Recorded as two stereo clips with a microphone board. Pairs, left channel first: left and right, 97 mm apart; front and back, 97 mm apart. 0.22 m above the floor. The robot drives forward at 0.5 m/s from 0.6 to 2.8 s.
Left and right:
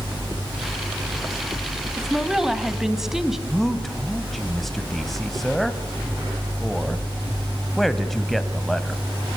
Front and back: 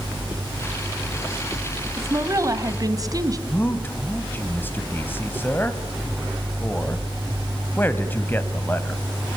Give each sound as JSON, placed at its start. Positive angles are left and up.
{"t": 2.0, "sound": "a woman speaking", "azimuth_deg": -170, "distance_m": 1.6}
{"t": 3.5, "sound": "a man speaking", "azimuth_deg": 10, "distance_m": 1.6}